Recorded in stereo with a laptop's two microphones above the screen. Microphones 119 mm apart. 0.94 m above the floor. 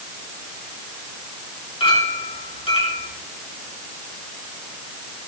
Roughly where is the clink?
Left.